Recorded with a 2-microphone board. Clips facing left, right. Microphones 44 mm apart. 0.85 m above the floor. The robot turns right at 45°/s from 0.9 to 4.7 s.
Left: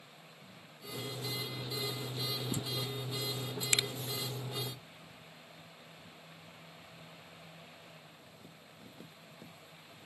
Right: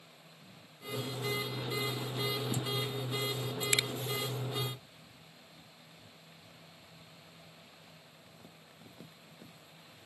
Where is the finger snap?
10° right (ahead or behind); by 3.9 s 15° right (ahead or behind).